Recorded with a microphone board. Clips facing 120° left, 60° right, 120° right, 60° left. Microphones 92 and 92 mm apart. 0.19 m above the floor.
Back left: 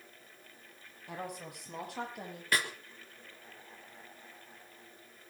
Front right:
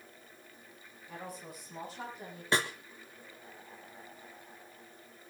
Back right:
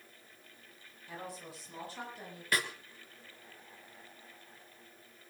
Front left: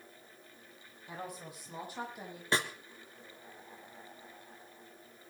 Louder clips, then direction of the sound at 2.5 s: Front right 2 dB, front left 2 dB; straight ahead.